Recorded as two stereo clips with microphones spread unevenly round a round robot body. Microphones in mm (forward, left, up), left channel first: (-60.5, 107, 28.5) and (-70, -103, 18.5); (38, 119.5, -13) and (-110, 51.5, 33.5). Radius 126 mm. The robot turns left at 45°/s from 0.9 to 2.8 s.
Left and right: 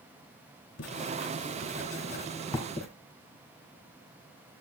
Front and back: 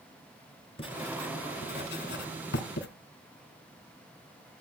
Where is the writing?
85° left, 1.7 m; by 2.9 s straight ahead, 1.7 m.